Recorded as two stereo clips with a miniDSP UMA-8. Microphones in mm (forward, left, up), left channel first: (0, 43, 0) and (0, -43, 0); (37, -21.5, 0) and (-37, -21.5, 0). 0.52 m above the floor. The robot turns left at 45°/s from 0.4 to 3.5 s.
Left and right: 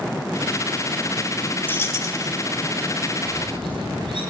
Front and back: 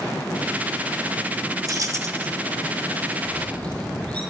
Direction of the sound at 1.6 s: 155° left.